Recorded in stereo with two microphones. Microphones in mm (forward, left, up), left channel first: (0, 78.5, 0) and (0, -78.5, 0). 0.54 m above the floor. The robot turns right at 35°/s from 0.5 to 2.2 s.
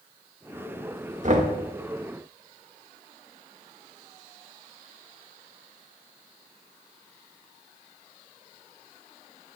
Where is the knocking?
50° right (ahead or behind), 0.9 m.